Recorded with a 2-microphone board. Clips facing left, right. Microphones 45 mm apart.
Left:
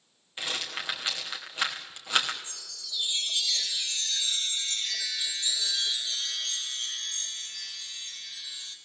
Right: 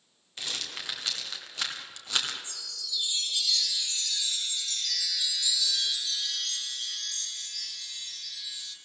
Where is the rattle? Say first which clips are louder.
Left 3 dB; 20° left (ahead or behind), 2.5 m.